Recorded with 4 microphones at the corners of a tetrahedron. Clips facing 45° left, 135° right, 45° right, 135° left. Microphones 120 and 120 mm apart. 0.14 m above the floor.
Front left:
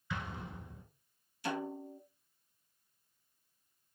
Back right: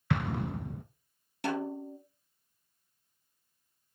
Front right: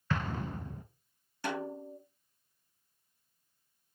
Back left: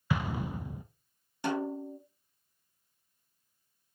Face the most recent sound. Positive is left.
turn(degrees=-155)